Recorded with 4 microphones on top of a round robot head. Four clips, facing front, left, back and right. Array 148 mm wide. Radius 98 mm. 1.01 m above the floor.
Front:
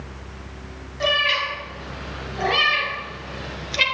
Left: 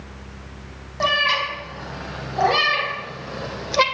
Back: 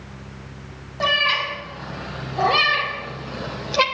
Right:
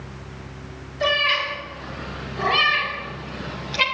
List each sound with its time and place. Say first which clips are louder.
1.0 s a cat meowing: left 1 dB, back 1 dB; 125° left, 3.5 m; by 3.9 s 130° left, 1.6 m